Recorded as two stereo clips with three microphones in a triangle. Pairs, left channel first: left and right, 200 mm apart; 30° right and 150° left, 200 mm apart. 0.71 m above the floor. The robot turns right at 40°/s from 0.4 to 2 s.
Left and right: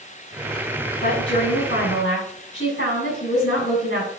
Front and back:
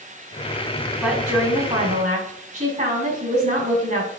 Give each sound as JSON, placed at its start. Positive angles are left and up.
{"t": 1.0, "sound": "a woman speaking", "azimuth_deg": 65, "distance_m": 4.5}